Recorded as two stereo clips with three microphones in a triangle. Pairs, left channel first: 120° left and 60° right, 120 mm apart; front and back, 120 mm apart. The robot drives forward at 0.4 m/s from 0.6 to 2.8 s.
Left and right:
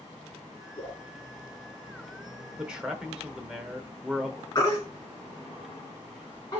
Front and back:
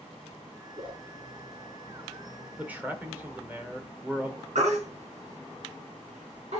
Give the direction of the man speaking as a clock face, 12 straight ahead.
4 o'clock.